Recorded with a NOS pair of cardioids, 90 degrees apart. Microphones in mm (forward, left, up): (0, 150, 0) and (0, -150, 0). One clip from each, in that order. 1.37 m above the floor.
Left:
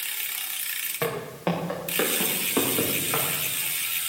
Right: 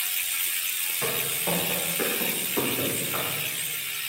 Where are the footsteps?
70° left, 7.5 m; by 3.2 s 65° left, 9.5 m.